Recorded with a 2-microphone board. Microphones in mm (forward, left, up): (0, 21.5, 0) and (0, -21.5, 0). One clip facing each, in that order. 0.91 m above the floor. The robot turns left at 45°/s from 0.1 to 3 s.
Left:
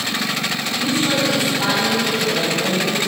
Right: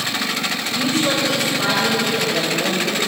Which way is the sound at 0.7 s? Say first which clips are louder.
Even; 75° right.